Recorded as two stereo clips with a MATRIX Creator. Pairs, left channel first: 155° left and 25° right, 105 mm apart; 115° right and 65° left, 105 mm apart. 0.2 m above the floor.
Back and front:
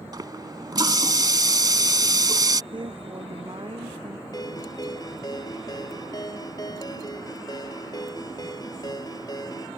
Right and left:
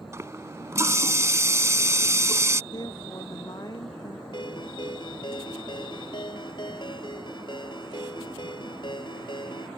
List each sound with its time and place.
0.1 s a running tap: 15° left
2.7 s a woman speaking: 65° right
4.3 s a ringtone: 150° right